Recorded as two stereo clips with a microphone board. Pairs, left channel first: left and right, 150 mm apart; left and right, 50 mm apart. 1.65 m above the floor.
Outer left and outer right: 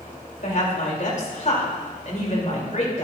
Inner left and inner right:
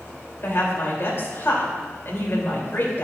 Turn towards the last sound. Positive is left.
turn(degrees=55)  # may be behind; listen again after turning